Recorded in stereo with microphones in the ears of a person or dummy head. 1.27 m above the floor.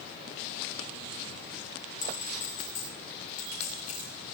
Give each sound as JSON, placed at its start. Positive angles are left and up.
{"t": 2.0, "sound": "a clink", "side_deg": 45, "distance_m": 7.5}